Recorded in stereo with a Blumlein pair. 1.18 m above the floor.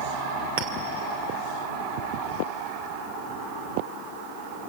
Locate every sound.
0.6 s a clink: 50° right, 3 m